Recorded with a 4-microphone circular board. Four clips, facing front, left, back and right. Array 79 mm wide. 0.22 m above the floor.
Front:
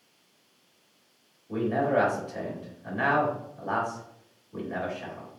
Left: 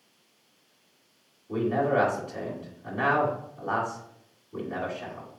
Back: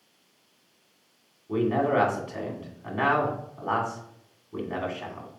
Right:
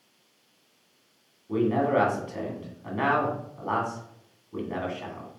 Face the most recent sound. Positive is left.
turn(degrees=-150)